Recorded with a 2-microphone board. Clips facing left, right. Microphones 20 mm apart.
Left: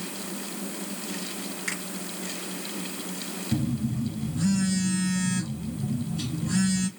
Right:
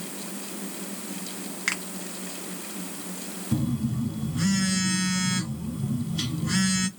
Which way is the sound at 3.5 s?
70° right (ahead or behind).